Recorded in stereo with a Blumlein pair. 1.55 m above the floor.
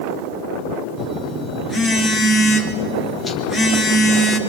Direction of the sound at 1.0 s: 25° left.